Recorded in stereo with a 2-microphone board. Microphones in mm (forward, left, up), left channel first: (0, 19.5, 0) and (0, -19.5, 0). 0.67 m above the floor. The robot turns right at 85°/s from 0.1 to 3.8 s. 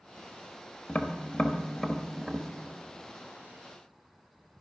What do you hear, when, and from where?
0.9 s tapping: 25° left (ahead or behind), 1.0 m; by 2.5 s 10° right (ahead or behind), 1.0 m